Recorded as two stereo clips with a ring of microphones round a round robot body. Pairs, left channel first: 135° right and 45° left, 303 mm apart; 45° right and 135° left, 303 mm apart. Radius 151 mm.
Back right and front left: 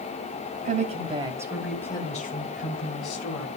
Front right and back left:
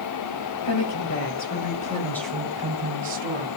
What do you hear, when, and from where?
0.7 s a woman speaking: 20° right, 2.5 m; by 3.5 s 175° right, 2.5 m